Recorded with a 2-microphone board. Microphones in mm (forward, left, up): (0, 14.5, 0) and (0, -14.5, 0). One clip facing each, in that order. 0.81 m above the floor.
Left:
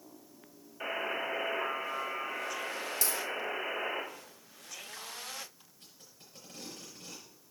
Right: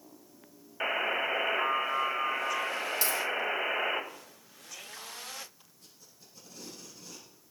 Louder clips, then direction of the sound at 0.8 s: Right 5 dB; 50° right (ahead or behind).